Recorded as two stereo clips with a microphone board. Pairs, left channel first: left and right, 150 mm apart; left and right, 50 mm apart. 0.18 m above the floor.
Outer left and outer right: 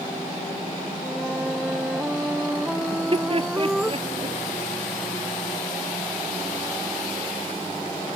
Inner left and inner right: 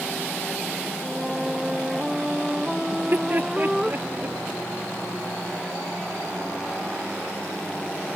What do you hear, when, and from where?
1.0 s a flute: 5° right (ahead or behind)
2.9 s laughter: 40° right (ahead or behind)